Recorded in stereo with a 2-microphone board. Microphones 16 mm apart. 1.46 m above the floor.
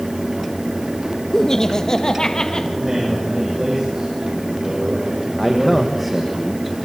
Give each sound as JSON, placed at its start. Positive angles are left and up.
{"t": 1.3, "sound": "laughter", "side_deg": 30, "distance_m": 1.4}
{"t": 2.8, "sound": "a man speaking", "side_deg": -40, "distance_m": 7.0}
{"t": 5.4, "sound": "a man speaking", "side_deg": -10, "distance_m": 1.7}